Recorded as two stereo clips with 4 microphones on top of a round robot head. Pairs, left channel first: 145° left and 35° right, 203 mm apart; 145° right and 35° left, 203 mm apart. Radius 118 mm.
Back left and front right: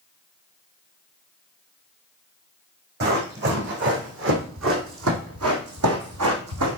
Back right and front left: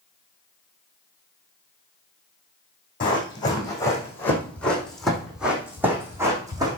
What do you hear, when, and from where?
3.0 s running footsteps: 80° right, 3.5 m; by 6.8 s 35° right, 3.5 m